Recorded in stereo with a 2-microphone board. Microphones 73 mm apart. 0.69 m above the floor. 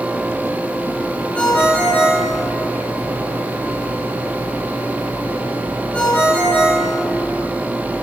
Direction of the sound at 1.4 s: 15° left (ahead or behind).